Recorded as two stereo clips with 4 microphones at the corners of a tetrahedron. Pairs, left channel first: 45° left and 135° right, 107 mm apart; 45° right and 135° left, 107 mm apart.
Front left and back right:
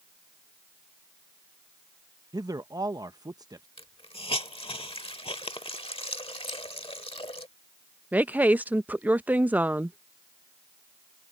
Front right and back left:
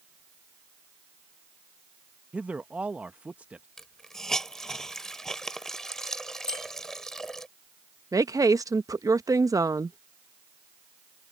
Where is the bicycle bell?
45° right.